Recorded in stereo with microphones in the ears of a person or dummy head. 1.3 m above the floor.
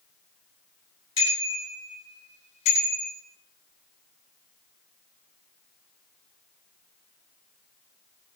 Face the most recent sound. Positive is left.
turn(degrees=35)  # may be behind; listen again after turning